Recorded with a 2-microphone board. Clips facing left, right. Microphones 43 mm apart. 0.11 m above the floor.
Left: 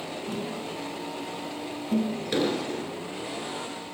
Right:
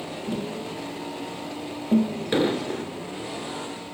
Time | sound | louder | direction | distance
0.3 | tapping | right 4 dB | 40° right (ahead or behind) | 0.8 m
2.3 | an explosion | right 4 dB | 25° right (ahead or behind) | 0.5 m